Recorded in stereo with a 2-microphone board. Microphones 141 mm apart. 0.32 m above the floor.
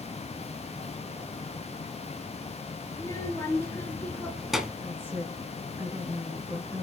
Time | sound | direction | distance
2.9 | a child speaking | 25° left (ahead or behind) | 3 m
4.8 | a woman speaking | 15° right (ahead or behind) | 3 m